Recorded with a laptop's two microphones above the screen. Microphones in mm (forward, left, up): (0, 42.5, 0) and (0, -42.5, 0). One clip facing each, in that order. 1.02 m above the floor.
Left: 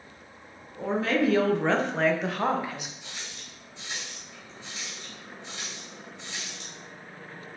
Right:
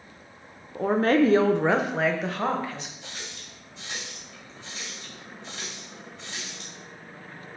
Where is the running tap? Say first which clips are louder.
Right 2 dB; 45° right (ahead or behind), 2 m.